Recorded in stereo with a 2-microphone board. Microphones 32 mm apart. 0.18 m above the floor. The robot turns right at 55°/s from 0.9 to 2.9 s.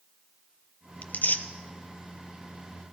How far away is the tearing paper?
About 0.9 m.